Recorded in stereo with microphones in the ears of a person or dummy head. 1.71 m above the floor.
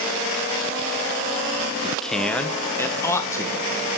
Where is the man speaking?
Centre (ahead or behind), 1.0 m; by 3.8 s 20° left (ahead or behind), 2.5 m.